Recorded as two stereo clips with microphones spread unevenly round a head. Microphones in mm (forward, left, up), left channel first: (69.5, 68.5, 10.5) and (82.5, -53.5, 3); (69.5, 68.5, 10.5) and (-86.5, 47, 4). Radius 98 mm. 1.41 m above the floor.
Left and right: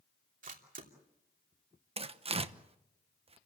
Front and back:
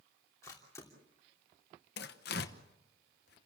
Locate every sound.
0.4 s a camera shutter: 70° right, 3 m
2.0 s tearing paper: 40° right, 1.0 m